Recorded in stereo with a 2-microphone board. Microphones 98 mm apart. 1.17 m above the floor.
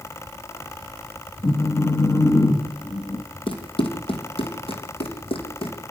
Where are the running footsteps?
65° left (ahead or behind), 3 m; by 5.8 s 75° left (ahead or behind), 4 m.